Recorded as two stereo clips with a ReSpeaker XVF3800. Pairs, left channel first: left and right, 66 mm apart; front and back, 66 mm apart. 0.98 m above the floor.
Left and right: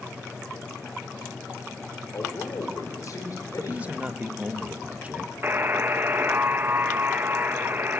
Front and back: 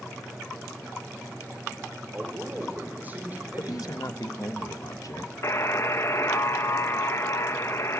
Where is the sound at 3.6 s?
20° right, 1.1 m.